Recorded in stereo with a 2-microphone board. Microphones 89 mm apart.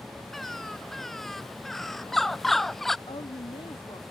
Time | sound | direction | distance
0.3 | a bird | 5° left (ahead or behind) | ?
3.1 | a woman speaking | 65° left (ahead or behind) | ?